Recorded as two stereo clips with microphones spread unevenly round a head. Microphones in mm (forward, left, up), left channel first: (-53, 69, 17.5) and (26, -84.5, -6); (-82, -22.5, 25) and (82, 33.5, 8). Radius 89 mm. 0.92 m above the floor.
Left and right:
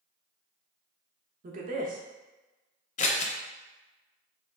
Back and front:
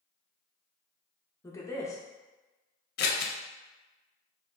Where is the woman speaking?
85° right, 0.7 m.